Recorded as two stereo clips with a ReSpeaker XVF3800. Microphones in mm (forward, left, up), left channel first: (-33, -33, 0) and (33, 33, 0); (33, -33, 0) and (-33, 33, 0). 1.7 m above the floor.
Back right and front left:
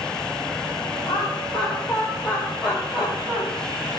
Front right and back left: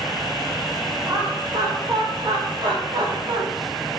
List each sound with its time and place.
1.1 s laughter: 140° left, 4.5 m; by 3.4 s 105° left, 3 m